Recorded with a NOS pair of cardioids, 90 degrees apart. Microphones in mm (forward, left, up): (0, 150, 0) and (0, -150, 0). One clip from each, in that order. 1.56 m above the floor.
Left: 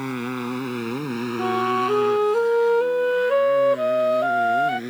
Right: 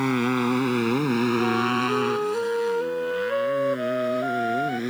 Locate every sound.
0.0 s a motorcycle: 35° right; by 4.9 s 25° right
1.4 s a flute: 45° left